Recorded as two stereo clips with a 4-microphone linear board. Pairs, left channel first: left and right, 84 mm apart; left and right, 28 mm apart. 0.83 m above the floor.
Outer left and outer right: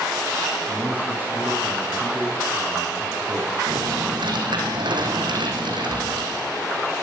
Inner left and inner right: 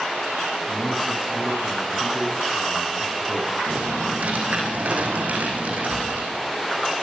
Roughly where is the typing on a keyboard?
Right.